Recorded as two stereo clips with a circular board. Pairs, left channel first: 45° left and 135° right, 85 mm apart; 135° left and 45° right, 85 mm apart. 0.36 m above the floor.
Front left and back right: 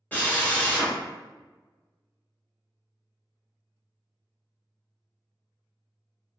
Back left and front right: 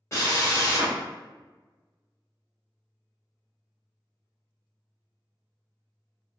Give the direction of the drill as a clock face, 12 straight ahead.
9 o'clock.